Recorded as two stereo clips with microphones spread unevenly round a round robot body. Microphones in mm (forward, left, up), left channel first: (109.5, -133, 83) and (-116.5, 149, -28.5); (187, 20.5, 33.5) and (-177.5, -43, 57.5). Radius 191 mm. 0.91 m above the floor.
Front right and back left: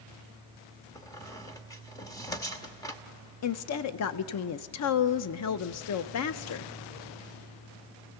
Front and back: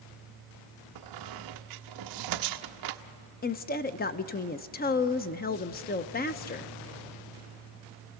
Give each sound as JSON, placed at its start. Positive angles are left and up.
{"t": 0.9, "sound": "a squeak", "azimuth_deg": -135, "distance_m": 0.8}
{"t": 3.4, "sound": "a woman speaking", "azimuth_deg": -10, "distance_m": 0.5}